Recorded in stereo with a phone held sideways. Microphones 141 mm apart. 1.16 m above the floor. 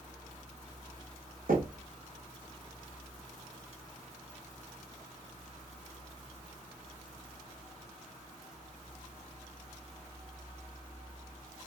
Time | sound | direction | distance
1.5 | knocking | 90° right | 0.7 m